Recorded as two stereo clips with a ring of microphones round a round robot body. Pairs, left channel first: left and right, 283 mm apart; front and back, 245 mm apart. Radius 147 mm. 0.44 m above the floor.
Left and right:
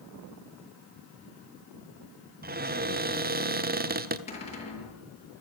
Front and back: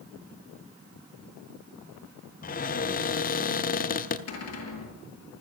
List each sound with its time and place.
2.4 s a cupboard door: 45° right, 1.3 m
4.3 s a cupboard door: 20° left, 8 m